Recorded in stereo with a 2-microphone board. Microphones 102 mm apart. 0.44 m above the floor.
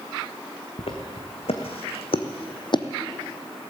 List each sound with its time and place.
0.8 s footsteps: 70° left (ahead or behind), 1.7 m; by 2.9 s 45° left (ahead or behind), 0.8 m